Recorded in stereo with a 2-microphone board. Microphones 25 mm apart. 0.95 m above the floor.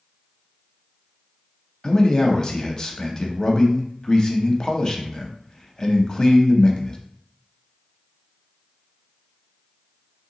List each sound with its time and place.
1.8 s a man speaking: 30° left (ahead or behind), 0.7 m